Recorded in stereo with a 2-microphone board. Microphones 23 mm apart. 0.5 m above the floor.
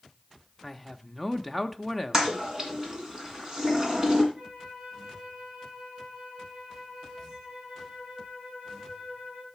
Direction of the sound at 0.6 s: Centre (ahead or behind).